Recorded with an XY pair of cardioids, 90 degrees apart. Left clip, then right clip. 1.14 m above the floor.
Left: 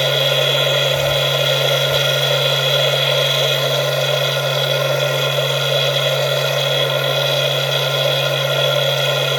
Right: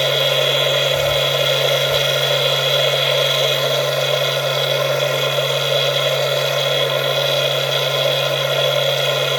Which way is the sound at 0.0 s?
5° right.